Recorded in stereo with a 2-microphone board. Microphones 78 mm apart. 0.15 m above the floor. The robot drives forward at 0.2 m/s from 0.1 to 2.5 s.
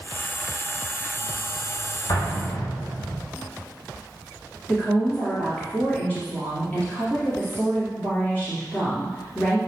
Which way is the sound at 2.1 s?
50° left (ahead or behind).